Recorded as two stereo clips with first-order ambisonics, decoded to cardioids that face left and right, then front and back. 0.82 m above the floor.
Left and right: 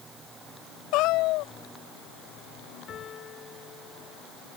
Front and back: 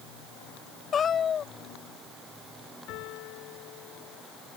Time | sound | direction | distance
0.9 | a cat meowing | 65° left | ?
2.9 | a piano | 30° left | ?